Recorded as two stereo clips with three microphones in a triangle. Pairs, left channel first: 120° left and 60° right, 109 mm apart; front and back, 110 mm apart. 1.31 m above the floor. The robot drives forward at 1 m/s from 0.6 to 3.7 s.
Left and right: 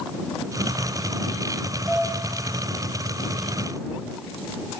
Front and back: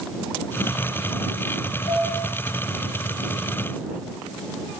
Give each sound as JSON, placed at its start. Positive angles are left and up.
{"t": 1.9, "sound": "dishes clattering", "azimuth_deg": 15, "distance_m": 8.5}